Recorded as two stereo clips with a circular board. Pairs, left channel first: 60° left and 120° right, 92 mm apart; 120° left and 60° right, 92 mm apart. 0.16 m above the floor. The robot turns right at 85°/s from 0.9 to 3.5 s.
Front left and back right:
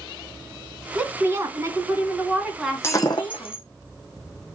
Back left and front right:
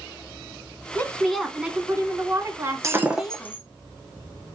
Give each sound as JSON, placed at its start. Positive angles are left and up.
{"t": 0.9, "sound": "a woman speaking", "azimuth_deg": 175, "distance_m": 1.4}
{"t": 2.8, "sound": "breaking glass", "azimuth_deg": -5, "distance_m": 1.4}